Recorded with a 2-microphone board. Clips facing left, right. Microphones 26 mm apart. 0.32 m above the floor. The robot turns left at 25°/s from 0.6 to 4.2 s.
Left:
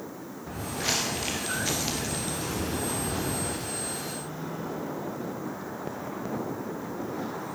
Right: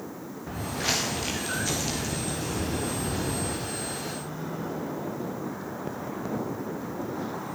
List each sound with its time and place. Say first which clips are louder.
0.5 s footsteps: right 1 dB; 10° right (ahead or behind), 2.5 m; by 3.6 s 60° left (ahead or behind), 4.5 m